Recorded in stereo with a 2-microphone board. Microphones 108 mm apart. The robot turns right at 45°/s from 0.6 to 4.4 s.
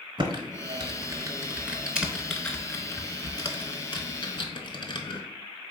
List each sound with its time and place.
0.2 s typing on a keyboard: 45° right (ahead or behind), 0.7 m; by 5.2 s 50° left (ahead or behind), 0.7 m